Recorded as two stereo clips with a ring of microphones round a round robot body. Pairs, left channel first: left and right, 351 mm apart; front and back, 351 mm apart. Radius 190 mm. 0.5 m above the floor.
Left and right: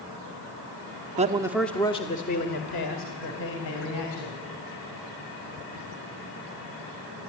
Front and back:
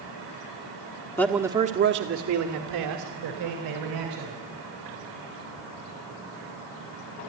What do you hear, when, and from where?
1.2 s a man speaking: 70° right, 1.1 m; by 4.4 s 140° left, 4 m